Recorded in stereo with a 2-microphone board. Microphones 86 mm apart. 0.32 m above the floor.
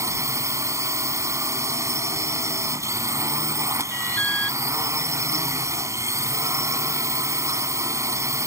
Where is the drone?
35° right (ahead or behind).